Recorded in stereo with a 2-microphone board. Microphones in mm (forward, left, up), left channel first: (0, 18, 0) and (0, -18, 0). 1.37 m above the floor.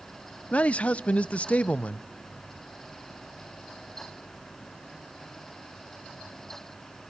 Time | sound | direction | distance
0.5 | a man speaking | 35° left (ahead or behind) | 0.5 m